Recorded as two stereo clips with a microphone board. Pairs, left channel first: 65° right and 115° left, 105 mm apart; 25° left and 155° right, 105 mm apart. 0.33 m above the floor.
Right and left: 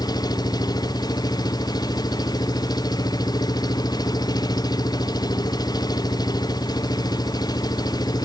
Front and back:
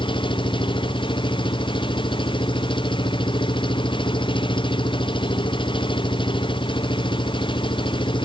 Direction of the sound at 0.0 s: 15° right.